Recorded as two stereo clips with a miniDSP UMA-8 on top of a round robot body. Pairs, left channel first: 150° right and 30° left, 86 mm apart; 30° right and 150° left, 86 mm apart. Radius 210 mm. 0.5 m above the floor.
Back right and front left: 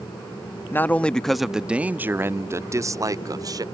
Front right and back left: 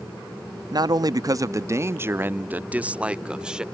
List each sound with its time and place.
0.7 s a man speaking: 155° left; by 3.6 s 70° left